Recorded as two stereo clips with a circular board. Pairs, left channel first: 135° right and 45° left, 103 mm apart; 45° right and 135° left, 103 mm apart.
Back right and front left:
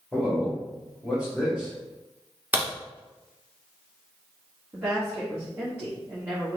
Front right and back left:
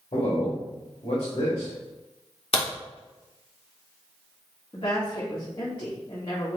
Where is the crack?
30° right, 1.5 m.